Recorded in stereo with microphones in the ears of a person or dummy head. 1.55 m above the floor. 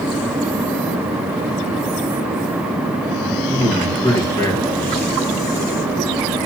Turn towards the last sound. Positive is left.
turn(degrees=0)  # may be behind; listen again after turning